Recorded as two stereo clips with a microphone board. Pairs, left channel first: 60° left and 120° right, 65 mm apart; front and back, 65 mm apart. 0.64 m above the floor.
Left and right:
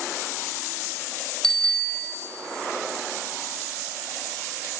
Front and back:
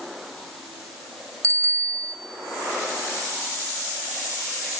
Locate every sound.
1.4 s a bicycle bell: 140° left, 2 m